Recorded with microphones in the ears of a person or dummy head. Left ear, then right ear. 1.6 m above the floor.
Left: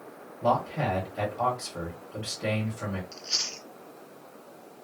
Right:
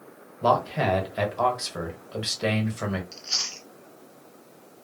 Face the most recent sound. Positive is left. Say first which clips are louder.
# left 1 dB
turn(degrees=0)  # may be behind; listen again after turning